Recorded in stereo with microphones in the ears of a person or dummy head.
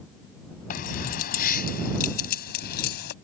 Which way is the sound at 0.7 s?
55° left (ahead or behind).